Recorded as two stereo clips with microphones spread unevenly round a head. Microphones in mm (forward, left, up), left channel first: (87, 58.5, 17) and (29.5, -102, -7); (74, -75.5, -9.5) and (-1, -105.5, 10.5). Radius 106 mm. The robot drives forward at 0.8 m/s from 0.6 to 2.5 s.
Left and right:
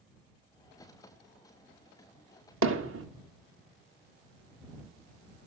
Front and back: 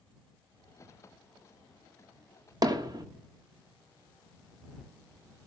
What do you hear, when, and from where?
2.6 s hammering: 125° right, 1.5 m